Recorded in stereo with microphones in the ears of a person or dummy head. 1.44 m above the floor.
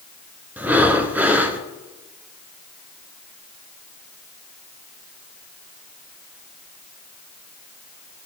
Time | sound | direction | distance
0.6 | breathing | 5° right (ahead or behind) | 0.7 m